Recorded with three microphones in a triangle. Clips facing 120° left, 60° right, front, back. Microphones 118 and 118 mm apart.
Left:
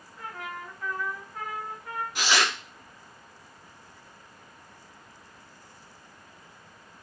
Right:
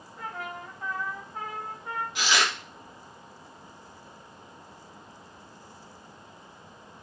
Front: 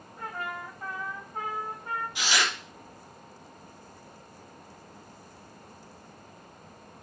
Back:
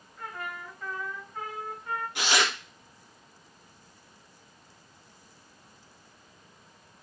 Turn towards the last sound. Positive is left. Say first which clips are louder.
# left 1 dB, back 3 dB
turn(degrees=165)